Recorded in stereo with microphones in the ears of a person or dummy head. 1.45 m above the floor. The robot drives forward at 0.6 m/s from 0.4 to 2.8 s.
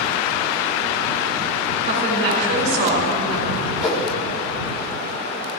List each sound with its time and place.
1.8 s a woman speaking: 60° right (ahead or behind), 4.5 m; by 3.7 s 65° right (ahead or behind), 4 m
3.8 s a whoosh: centre (ahead or behind), 2.5 m